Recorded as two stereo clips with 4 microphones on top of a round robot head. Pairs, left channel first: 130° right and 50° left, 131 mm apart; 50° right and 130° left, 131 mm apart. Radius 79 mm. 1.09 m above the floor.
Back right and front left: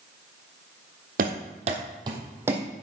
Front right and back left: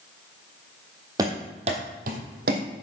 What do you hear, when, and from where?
1.2 s running footsteps: 65° left, 2 m; by 2.8 s 130° left, 2.5 m